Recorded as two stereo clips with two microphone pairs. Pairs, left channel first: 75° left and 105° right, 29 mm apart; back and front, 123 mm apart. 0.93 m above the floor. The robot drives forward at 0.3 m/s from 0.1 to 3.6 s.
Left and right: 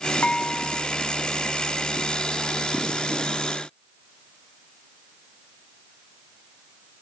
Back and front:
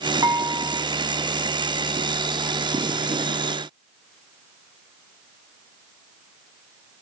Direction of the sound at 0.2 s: 60° left.